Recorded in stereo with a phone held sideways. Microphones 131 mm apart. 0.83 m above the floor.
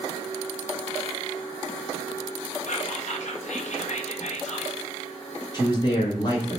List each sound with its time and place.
2.7 s whispering: 60° left (ahead or behind), 0.7 m
5.5 s a man speaking: 30° left (ahead or behind), 0.8 m